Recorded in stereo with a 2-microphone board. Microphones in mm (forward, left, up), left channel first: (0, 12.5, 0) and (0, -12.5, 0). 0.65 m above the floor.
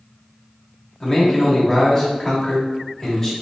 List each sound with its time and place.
1.0 s a man speaking: 15° left (ahead or behind), 1.0 m